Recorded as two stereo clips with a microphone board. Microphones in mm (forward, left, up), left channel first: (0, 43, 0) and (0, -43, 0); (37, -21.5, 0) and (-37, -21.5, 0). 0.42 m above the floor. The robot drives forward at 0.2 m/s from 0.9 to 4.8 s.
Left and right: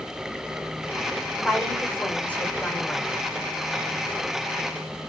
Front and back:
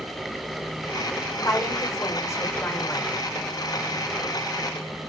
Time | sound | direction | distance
1.4 | a woman speaking | 20° left | 1.2 m